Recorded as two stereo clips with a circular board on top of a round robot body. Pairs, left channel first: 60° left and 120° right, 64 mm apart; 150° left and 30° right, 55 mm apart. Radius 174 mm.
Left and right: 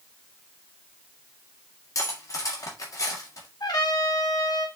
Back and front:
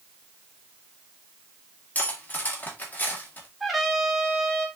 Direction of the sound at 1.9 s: 95° left.